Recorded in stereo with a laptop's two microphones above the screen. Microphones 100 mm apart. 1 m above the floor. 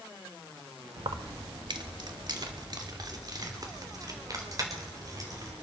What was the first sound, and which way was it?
Keys jangling, 60° right (ahead or behind).